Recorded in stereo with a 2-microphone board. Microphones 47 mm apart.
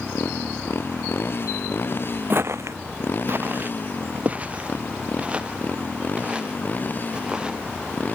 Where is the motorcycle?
55° left (ahead or behind); by 8.2 s 35° left (ahead or behind).